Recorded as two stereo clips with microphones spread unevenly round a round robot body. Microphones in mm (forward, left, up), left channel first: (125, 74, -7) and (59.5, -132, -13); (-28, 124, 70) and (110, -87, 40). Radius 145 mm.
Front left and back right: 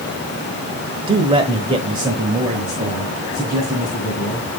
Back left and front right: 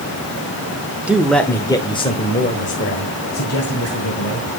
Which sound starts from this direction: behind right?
A man speaking, at 1.1 s.